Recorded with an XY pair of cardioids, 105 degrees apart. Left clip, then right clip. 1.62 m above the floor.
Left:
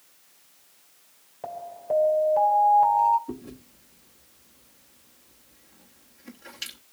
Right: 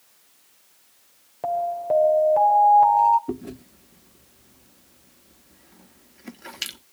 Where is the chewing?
60° right, 1.3 m.